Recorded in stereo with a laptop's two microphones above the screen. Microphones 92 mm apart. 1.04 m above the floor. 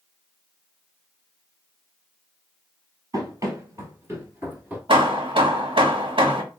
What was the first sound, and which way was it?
Running footsteps, 40° right (ahead or behind).